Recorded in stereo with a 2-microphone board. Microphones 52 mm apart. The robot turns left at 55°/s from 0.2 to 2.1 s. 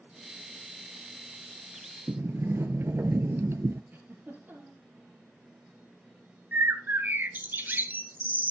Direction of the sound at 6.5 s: 40° right (ahead or behind).